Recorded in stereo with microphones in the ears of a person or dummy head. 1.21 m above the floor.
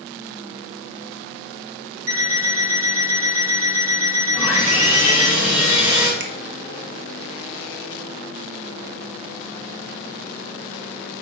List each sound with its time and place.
2.1 s an alarm clock: 70° right (ahead or behind), 2 m
4.3 s sawing: 5° right (ahead or behind), 1.9 m
6.2 s a finger snap: 60° right (ahead or behind), 1.2 m